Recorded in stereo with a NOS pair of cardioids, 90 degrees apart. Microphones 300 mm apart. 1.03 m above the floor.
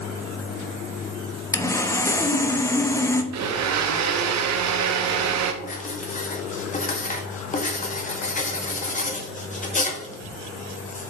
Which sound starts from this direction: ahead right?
A blender, at 3.3 s.